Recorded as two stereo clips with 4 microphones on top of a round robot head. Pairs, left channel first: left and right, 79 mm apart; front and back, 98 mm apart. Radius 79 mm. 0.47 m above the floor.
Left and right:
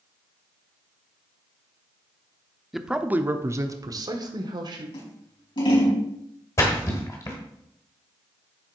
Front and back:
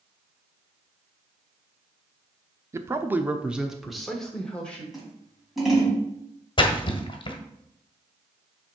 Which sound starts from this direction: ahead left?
A splash, at 6.6 s.